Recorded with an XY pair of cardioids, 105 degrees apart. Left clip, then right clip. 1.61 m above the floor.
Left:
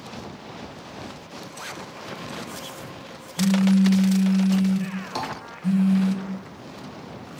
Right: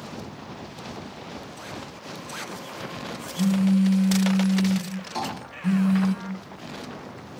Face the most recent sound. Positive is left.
turn(degrees=45)